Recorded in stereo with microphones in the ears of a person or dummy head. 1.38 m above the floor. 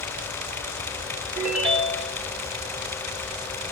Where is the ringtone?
5° right (ahead or behind), 1.1 m.